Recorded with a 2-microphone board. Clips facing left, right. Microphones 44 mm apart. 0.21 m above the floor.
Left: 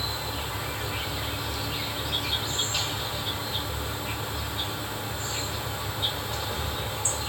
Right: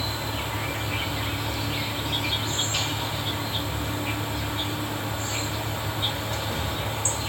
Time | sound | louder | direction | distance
0.0 | an insect | right 2 dB | 55° right (ahead or behind) | 2 m